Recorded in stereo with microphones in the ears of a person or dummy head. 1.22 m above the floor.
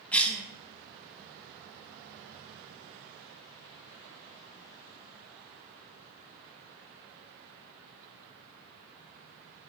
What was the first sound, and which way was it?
A cough, 5° left (ahead or behind).